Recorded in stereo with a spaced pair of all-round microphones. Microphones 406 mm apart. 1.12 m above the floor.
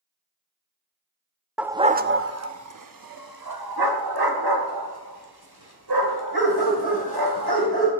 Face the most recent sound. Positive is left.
turn(degrees=-70)  # may be behind; listen again after turning